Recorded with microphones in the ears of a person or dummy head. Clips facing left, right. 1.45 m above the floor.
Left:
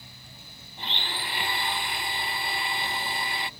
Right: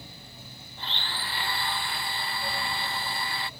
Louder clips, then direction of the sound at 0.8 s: Left 2 dB; 15° left (ahead or behind).